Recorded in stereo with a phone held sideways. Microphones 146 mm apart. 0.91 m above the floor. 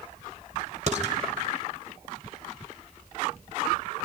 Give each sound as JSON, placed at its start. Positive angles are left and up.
{"t": 0.9, "sound": "dishes clattering", "side_deg": -50, "distance_m": 1.9}